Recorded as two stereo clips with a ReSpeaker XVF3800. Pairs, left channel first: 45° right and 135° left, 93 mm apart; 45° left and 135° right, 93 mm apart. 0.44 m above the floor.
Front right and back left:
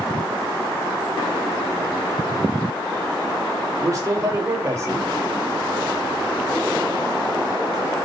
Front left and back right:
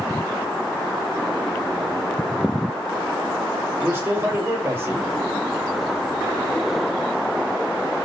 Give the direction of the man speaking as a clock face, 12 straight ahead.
6 o'clock.